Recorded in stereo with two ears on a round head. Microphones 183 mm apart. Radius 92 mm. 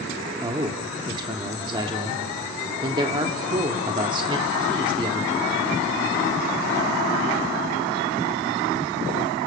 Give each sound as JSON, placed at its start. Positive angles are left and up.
{"t": 0.4, "sound": "a man speaking", "side_deg": -25, "distance_m": 1.3}